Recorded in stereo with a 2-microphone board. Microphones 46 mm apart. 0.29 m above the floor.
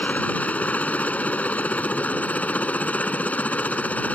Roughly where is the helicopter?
Left.